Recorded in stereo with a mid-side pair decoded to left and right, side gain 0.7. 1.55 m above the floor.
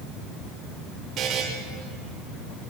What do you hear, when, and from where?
1.2 s a buzzer: 45° right, 7 m